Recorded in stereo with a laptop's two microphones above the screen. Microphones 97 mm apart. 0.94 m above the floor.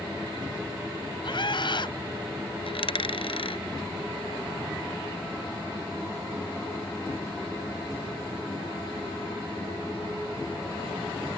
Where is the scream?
60° left (ahead or behind).